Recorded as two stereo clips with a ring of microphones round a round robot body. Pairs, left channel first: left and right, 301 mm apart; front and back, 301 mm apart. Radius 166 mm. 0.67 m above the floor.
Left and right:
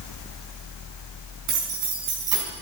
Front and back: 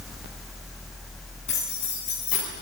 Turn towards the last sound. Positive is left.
turn(degrees=-65)